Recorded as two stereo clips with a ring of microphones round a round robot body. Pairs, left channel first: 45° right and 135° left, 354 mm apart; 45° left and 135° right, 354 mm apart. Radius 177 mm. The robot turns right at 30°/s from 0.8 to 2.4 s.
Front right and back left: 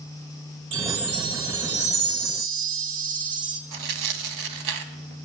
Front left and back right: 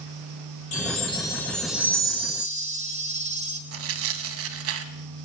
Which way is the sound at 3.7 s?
170° left.